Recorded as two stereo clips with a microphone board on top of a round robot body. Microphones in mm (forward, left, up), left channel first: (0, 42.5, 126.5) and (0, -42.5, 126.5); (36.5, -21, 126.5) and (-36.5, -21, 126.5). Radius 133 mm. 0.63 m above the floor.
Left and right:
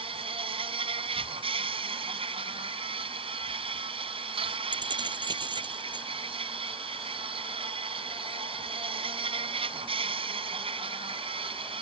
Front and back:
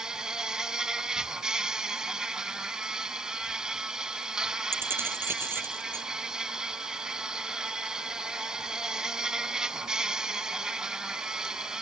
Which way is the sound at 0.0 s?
100° right.